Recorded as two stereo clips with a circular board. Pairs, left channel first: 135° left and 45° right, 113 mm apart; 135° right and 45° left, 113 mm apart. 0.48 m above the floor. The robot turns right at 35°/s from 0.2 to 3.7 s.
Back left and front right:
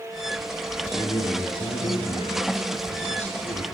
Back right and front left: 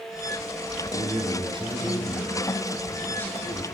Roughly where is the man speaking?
Left.